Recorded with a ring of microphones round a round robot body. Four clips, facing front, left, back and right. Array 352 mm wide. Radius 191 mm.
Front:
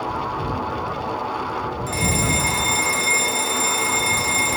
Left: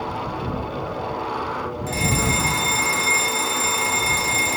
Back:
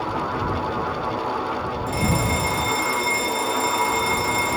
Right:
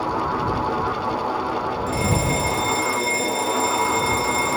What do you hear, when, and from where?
1.9 s a fire alarm: 45° left